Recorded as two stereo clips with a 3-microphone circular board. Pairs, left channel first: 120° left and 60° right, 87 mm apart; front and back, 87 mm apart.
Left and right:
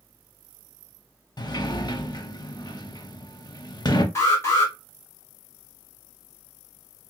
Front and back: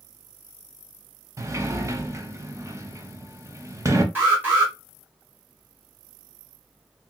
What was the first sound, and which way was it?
A sliding door, 135° left.